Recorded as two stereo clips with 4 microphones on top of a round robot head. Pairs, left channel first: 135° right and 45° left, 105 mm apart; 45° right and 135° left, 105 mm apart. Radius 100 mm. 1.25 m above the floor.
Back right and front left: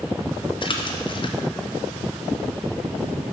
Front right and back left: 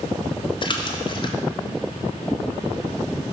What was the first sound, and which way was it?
A splash, 90° right.